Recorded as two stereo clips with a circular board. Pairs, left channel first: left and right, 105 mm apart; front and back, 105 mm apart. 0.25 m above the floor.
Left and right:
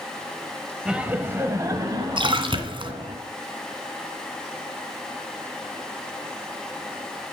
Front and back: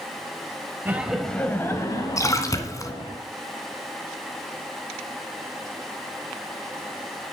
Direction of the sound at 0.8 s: 160° right.